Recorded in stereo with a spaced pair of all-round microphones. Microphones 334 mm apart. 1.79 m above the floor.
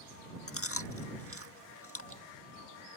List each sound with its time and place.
0.5 s chewing: 40° left (ahead or behind)